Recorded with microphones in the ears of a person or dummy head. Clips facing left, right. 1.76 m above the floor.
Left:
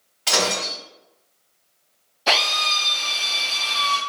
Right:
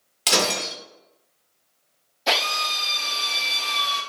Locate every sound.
0.3 s breaking glass: 40° right (ahead or behind), 1.3 m
2.3 s a drill: centre (ahead or behind), 2.0 m